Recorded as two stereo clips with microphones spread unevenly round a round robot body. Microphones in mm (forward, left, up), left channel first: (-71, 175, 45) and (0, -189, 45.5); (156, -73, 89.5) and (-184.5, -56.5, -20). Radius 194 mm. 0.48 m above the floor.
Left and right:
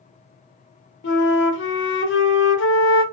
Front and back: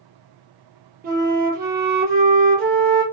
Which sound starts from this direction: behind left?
A flute, at 1.0 s.